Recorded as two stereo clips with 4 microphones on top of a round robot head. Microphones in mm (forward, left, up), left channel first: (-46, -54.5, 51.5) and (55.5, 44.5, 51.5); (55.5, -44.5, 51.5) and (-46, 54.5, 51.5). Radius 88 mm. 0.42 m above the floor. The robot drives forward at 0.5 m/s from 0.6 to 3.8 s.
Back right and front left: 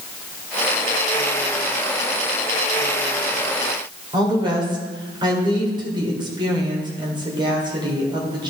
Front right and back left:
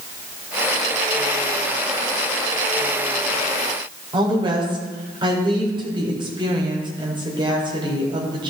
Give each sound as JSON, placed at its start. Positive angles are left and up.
{"t": 4.1, "sound": "a woman speaking", "azimuth_deg": 90, "distance_m": 2.0}